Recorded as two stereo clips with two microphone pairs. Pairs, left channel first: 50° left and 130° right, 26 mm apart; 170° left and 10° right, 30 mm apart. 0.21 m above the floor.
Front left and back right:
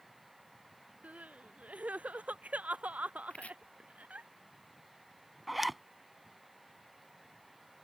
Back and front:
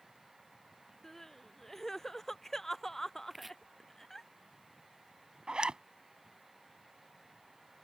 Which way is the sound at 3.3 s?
75° left.